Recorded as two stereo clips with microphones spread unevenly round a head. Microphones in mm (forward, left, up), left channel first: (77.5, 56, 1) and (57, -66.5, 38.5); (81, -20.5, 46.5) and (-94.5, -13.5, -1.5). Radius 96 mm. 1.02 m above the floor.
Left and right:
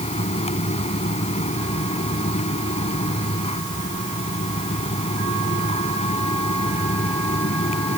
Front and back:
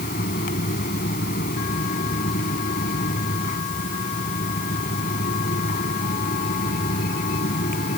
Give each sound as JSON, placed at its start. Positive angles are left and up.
{"t": 0.0, "sound": "a fan", "azimuth_deg": 45}